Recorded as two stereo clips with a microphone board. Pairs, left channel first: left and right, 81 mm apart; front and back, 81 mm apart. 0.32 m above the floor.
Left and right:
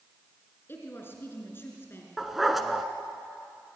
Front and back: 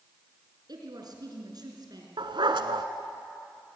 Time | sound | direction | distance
0.7 | a woman speaking | 150° left | 4 m
2.2 | a dog barking | straight behind | 1.2 m